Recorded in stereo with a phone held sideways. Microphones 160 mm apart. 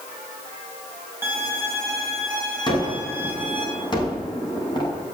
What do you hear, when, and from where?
1.2 s a violin: 15° right (ahead or behind), 4 m
2.7 s a gunshot: 30° left (ahead or behind), 5 m